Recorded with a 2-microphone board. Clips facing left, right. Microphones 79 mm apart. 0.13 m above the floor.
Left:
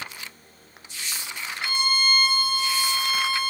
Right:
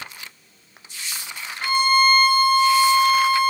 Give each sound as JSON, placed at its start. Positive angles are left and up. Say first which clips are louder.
{"t": 1.6, "sound": "a violin", "louder": "right 9 dB", "side_deg": -45, "distance_m": 1.2}